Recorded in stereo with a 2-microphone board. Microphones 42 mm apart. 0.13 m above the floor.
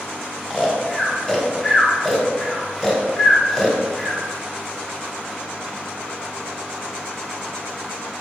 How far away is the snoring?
About 1.0 m.